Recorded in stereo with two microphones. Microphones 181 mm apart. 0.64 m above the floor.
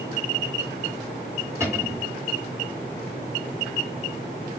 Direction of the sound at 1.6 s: 15° right (ahead or behind).